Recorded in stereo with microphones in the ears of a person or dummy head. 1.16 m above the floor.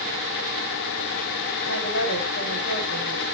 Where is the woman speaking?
80° left, 4 m.